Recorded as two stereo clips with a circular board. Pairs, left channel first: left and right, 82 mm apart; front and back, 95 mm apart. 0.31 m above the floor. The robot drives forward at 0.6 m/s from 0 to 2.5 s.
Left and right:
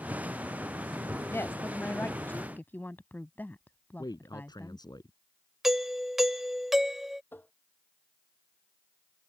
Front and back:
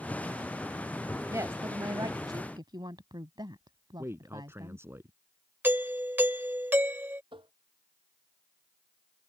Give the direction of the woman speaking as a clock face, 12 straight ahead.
7 o'clock.